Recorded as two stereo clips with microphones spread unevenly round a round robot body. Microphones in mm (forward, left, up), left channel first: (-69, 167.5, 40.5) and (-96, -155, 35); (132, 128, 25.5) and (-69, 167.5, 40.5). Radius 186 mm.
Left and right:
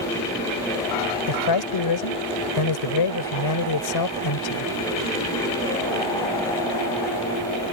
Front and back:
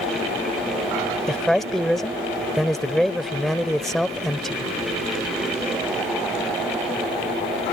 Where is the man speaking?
80° left.